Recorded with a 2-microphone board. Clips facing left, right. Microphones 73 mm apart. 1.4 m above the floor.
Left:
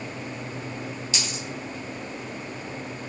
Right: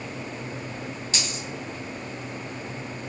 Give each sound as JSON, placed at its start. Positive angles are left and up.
{"t": 1.1, "sound": "a dropped coin", "side_deg": -35, "distance_m": 1.9}